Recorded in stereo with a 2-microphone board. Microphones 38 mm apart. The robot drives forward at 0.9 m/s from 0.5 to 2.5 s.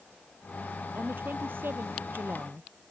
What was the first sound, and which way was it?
A woman speaking, 65° right (ahead or behind).